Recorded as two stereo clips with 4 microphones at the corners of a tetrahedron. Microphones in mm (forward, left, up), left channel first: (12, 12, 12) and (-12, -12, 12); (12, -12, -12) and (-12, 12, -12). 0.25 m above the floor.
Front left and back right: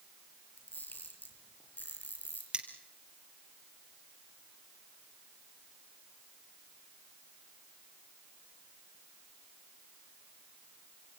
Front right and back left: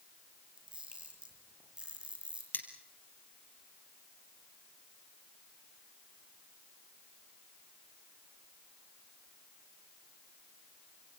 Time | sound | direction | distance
0.6 | a camera shutter | 75° left | 6 m
2.5 | cutlery clinking | 75° right | 3.5 m